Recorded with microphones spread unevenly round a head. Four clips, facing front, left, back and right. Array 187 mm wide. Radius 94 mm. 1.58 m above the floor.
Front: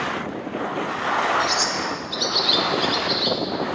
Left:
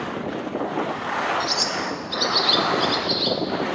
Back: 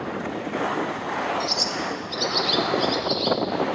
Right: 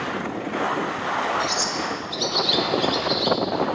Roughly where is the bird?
Ahead left.